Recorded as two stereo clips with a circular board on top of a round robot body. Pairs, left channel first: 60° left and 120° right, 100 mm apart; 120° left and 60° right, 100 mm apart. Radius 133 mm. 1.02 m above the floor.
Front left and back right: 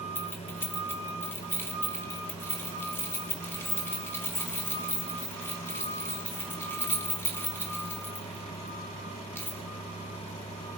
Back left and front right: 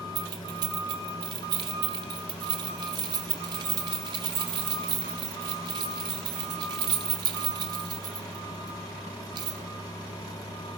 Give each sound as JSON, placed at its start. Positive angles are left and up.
{"t": 0.1, "sound": "keys jangling", "azimuth_deg": -10, "distance_m": 0.8}